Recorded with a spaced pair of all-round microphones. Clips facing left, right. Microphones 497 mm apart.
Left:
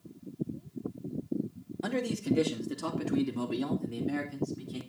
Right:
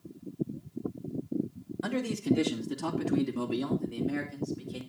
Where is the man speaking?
35° right (ahead or behind), 2.5 m; by 4.8 s 20° left (ahead or behind), 4.5 m.